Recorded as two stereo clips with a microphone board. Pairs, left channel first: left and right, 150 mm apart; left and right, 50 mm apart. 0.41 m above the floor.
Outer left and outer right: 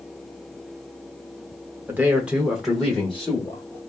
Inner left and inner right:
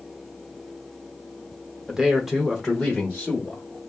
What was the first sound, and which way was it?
A man speaking, 15° right (ahead or behind).